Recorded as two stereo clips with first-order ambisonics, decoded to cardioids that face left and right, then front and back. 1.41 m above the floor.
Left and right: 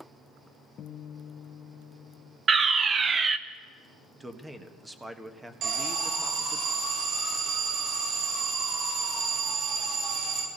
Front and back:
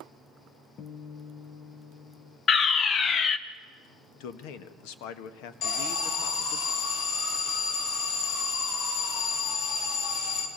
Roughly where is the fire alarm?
Ahead right.